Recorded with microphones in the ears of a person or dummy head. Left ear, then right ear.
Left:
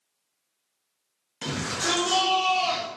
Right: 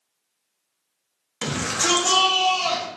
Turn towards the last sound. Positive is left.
turn(degrees=-75)  # may be behind; listen again after turning